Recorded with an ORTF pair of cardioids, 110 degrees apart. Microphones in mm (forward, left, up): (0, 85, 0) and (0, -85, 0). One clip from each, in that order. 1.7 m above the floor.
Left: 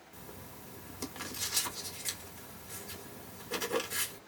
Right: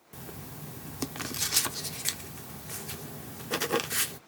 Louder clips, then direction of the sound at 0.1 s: Right 6 dB; 40° right.